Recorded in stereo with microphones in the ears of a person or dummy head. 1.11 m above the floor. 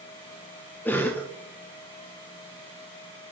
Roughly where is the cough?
Centre.